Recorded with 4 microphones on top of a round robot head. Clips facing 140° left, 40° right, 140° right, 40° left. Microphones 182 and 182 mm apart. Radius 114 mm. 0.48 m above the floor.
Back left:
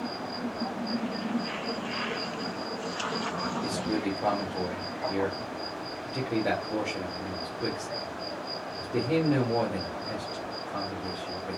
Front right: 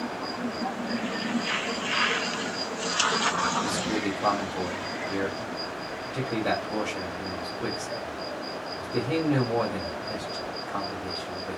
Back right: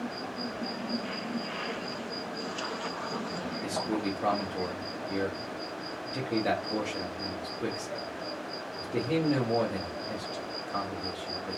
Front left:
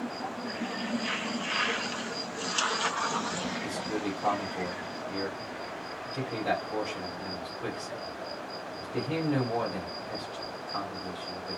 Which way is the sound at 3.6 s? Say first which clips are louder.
Back left 1 dB, back right 4 dB; 145° right.